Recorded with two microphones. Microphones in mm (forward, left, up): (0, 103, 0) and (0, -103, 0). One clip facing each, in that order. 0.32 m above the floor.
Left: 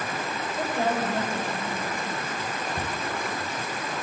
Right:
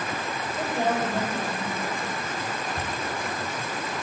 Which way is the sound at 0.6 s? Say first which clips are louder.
Right 1 dB; 5° right (ahead or behind).